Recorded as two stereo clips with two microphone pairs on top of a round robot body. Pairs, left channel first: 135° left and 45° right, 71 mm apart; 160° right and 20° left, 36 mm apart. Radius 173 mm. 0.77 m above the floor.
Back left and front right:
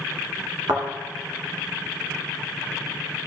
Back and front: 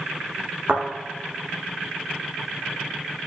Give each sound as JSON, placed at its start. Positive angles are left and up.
{"t": 0.7, "sound": "a thud", "azimuth_deg": -15, "distance_m": 1.9}